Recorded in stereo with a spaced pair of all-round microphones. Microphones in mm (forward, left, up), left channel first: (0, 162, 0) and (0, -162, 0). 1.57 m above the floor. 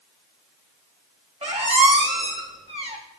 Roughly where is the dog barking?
No dog barking in this recording.